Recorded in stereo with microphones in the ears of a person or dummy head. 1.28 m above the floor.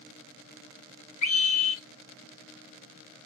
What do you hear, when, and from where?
1.2 s a scream: 45° left (ahead or behind), 2 m